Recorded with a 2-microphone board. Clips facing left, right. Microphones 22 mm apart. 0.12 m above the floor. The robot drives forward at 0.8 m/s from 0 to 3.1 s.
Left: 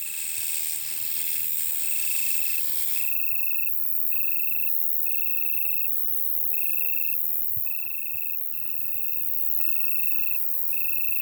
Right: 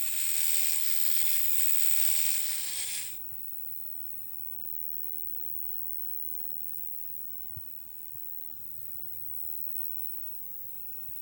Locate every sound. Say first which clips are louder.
0.0 s an insect: left 1 dB; 45° left (ahead or behind); by 11.2 s 80° left